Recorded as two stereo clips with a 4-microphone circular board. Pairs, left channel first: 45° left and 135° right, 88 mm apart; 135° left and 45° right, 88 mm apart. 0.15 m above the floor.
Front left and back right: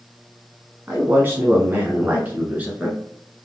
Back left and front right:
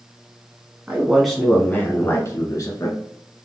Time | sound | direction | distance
0.9 | a man speaking | 110° right | 1.1 m